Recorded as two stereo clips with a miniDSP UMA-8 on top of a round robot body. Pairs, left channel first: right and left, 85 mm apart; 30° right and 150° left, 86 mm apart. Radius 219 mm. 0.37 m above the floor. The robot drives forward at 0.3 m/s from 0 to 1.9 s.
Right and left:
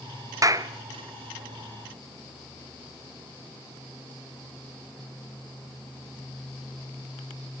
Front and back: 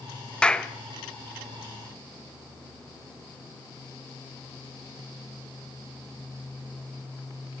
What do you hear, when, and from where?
0.4 s a clap: 45° left, 1.6 m; by 0.7 s 50° left, 1.6 m